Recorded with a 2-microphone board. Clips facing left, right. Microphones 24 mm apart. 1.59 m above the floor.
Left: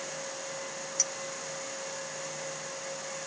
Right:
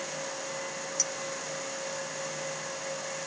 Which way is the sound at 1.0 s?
5° left (ahead or behind).